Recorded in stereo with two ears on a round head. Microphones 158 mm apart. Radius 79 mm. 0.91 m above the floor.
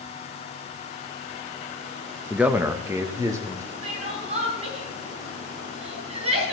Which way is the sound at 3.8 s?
35° right (ahead or behind).